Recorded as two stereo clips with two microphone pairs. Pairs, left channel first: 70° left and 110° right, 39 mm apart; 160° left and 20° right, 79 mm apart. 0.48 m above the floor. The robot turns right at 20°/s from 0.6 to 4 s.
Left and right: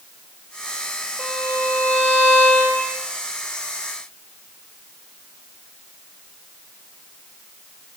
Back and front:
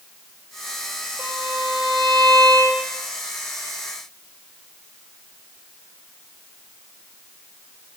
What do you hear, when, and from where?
1.2 s a violin: 50° left, 1.5 m; by 3.0 s 90° left, 1.5 m